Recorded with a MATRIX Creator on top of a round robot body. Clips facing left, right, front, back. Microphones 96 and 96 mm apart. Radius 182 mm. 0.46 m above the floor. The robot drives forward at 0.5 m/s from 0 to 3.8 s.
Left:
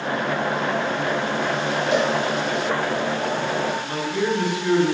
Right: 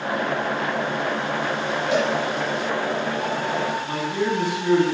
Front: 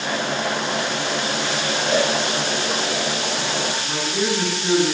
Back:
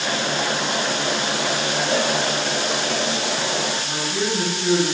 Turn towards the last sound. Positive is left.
turn(degrees=-120)